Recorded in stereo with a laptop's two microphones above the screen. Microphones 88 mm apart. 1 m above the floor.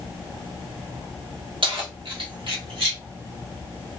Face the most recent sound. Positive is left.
turn(degrees=-80)